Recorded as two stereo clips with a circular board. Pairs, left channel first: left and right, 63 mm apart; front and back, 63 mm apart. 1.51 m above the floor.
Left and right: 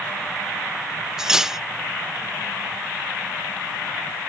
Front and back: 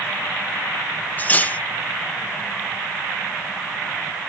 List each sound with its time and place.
1.2 s cutlery clinking: 15° right